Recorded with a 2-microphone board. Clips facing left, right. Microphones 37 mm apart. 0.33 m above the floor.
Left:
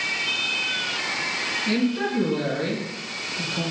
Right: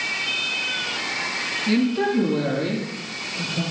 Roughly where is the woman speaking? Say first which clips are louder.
Right 4 dB; centre.